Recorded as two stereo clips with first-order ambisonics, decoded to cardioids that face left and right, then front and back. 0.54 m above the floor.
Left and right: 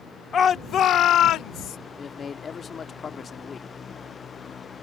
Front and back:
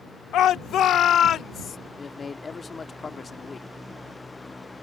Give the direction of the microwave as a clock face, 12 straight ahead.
I don't hear a microwave.